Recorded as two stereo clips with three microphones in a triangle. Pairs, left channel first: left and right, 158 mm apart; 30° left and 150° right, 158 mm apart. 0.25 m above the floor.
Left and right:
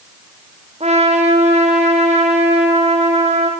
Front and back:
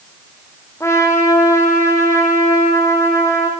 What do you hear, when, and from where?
0.8 s a trumpet: 45° right, 5.5 m